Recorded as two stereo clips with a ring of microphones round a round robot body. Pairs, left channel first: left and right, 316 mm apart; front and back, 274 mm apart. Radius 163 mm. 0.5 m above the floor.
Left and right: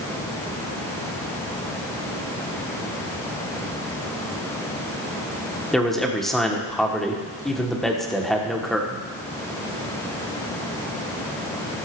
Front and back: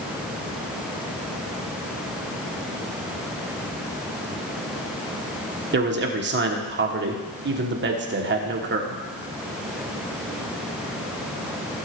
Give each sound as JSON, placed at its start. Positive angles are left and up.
{"t": 5.7, "sound": "a man speaking", "azimuth_deg": 180, "distance_m": 1.5}